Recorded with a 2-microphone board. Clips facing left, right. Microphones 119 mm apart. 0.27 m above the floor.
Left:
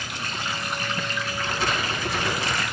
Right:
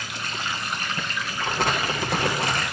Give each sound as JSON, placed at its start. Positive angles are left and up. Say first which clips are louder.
{"t": 1.4, "sound": "crumpling", "louder": "right 3 dB", "side_deg": -60, "distance_m": 9.5}